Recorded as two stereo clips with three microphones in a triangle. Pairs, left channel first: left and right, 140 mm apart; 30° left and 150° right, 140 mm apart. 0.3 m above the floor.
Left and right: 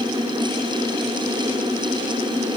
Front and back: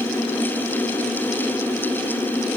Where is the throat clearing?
No throat clearing in this recording.